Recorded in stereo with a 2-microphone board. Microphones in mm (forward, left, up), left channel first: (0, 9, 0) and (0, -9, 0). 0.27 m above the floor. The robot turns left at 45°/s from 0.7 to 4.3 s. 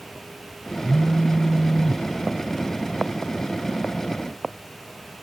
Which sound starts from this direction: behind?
A phone buzzing, at 0.8 s.